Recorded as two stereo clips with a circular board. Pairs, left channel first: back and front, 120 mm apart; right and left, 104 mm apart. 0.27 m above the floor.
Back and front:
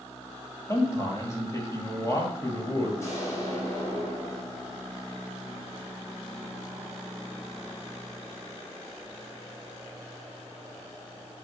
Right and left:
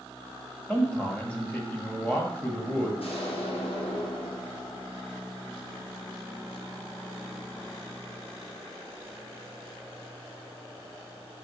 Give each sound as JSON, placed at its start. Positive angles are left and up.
{"t": 0.7, "sound": "a man speaking", "azimuth_deg": -150, "distance_m": 1.5}
{"t": 3.0, "sound": "an explosion", "azimuth_deg": -115, "distance_m": 2.5}